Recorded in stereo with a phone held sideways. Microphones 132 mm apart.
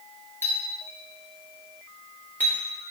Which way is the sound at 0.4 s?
15° left (ahead or behind).